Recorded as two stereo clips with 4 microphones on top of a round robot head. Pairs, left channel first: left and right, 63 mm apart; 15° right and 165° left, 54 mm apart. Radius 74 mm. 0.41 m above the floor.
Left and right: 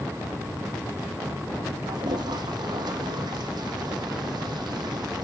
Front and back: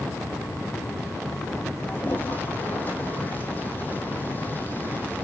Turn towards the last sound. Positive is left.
turn(degrees=-80)